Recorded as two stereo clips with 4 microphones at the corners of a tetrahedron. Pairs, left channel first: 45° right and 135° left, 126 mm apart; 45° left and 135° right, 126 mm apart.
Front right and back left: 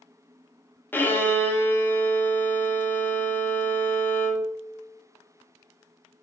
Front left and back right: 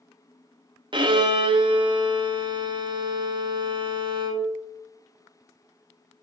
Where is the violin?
110° right, 0.9 m.